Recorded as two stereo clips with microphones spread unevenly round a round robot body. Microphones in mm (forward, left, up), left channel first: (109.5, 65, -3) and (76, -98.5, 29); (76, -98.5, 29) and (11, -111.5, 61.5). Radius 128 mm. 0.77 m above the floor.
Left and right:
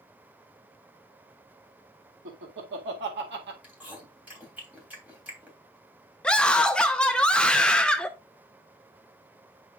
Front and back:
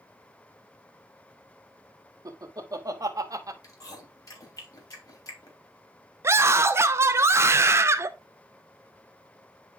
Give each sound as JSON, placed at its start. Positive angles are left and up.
{"t": 2.2, "sound": "laughter", "azimuth_deg": -125, "distance_m": 1.8}
{"t": 3.6, "sound": "chewing", "azimuth_deg": -20, "distance_m": 3.0}
{"t": 6.2, "sound": "a scream", "azimuth_deg": 125, "distance_m": 0.5}